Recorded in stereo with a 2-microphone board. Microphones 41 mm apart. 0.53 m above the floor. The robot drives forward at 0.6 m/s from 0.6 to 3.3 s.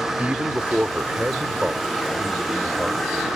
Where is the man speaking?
35° right (ahead or behind); by 3.3 s 20° right (ahead or behind).